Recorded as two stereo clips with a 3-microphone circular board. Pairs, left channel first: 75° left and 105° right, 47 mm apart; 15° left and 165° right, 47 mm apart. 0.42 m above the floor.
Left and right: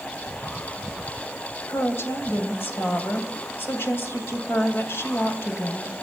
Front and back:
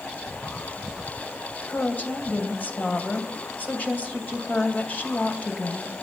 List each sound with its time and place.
1.7 s a woman speaking: 65° left, 2.5 m